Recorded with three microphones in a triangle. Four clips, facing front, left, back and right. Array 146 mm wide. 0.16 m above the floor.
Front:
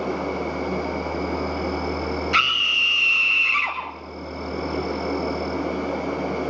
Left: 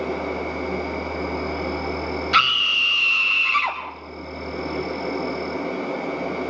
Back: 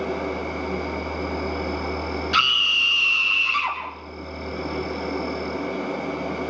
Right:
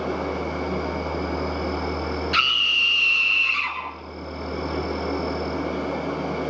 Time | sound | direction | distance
0.0 | an insect | 30° right | 5 m
2.3 | a scream | 75° left | 3 m